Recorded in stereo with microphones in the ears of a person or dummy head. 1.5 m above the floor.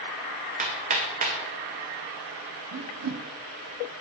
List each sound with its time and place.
0.6 s hammering: 35° right (ahead or behind), 1.0 m
2.7 s a whoosh: 75° right (ahead or behind), 0.7 m